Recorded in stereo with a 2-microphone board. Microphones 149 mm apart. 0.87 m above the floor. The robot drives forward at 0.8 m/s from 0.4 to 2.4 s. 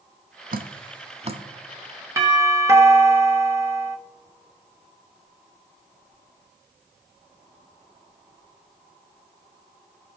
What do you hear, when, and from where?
0.5 s dripping: 75° right (ahead or behind), 0.5 m; by 1.4 s 40° right (ahead or behind), 0.8 m
2.2 s a doorbell: 20° right (ahead or behind), 1.2 m